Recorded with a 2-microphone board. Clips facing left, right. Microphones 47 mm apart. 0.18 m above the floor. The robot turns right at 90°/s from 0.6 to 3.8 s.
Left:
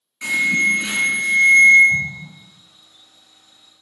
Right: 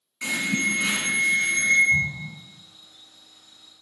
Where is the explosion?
40° left (ahead or behind), 1.4 m; by 2.3 s 70° left (ahead or behind), 1.4 m.